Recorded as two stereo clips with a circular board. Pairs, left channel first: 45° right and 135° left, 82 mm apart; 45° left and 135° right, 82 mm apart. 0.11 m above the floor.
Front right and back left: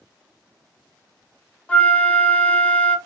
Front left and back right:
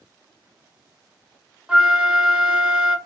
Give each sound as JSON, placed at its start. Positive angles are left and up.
{"t": 1.7, "sound": "a flute", "azimuth_deg": -75, "distance_m": 0.5}